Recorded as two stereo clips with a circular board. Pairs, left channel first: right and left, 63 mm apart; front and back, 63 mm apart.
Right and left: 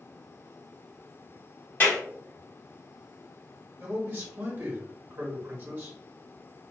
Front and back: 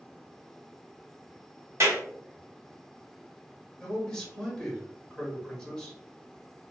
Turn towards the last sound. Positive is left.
turn(degrees=70)